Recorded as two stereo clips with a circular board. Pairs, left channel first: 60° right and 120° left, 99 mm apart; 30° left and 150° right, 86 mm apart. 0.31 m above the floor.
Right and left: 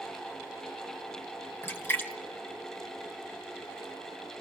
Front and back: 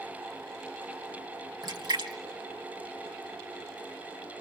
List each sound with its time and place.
1.6 s a splash: 125° right, 2.5 m